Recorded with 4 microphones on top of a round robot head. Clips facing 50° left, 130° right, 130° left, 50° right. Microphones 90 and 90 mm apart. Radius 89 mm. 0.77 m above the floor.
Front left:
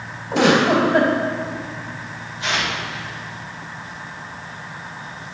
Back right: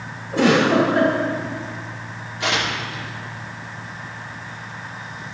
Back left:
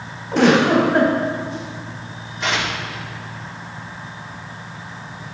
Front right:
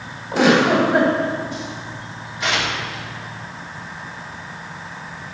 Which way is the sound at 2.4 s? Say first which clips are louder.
Back right 1 dB, even; 140° right.